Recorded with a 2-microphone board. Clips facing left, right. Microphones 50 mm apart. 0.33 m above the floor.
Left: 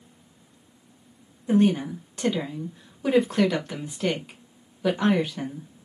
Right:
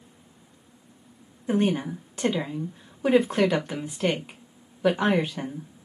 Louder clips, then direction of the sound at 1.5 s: Left 3 dB; 20° right (ahead or behind).